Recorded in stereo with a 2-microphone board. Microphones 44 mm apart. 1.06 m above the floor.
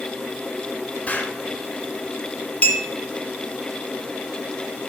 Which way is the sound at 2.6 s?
35° left (ahead or behind).